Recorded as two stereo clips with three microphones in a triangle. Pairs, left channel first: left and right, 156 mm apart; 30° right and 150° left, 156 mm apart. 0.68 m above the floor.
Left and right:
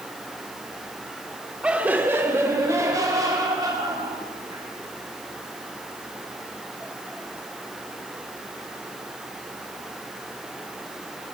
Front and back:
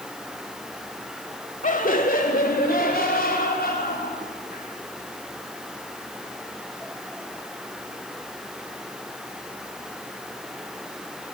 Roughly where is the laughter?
Ahead.